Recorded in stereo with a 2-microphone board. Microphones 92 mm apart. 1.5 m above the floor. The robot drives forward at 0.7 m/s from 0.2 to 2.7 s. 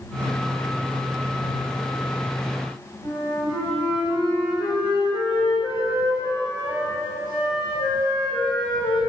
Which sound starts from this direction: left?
A flute, at 3.0 s.